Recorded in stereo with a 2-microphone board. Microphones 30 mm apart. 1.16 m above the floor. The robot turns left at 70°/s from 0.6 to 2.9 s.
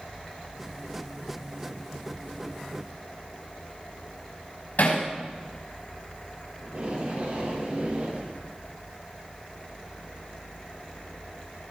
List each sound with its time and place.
4.8 s hammering: 70° left (ahead or behind), 5.5 m
6.6 s tape being pulled: 60° right (ahead or behind), 5.5 m